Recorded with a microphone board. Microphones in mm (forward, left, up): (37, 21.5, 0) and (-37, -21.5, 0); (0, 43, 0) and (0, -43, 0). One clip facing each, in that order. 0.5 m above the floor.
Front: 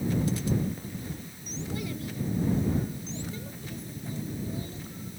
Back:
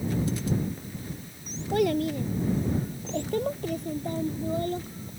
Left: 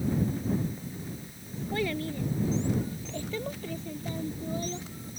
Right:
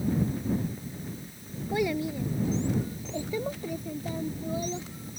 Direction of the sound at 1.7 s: 165° right.